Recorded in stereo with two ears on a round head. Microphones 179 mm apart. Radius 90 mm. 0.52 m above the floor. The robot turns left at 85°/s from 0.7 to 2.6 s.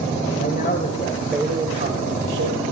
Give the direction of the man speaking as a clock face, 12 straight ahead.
10 o'clock.